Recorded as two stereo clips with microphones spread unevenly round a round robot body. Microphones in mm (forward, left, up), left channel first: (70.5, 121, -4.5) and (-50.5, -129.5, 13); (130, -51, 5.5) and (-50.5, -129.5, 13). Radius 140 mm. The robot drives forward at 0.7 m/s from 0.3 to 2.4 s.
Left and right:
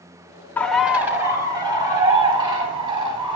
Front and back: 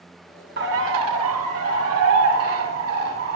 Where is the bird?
150° left, 0.5 m; by 3.4 s 170° left, 1.7 m.